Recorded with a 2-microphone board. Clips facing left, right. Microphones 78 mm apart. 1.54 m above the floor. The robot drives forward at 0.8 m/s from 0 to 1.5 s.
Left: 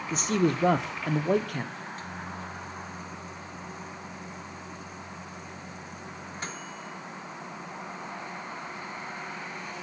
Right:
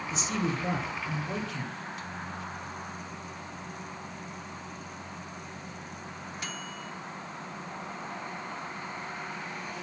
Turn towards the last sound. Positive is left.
turn(degrees=40)  # may be behind; listen again after turning